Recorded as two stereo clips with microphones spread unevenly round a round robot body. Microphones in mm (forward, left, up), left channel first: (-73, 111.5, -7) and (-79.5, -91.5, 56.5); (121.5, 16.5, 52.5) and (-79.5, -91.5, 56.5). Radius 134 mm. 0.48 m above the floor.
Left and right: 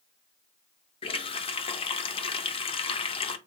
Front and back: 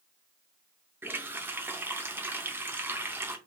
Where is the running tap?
130° left, 0.6 m.